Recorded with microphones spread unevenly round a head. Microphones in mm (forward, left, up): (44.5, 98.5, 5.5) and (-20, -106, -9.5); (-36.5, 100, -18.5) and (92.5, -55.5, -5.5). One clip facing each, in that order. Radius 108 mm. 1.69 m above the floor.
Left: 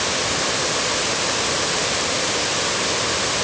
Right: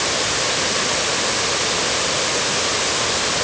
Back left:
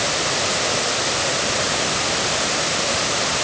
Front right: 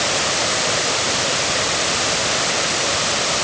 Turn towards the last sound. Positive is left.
No sound to turn to.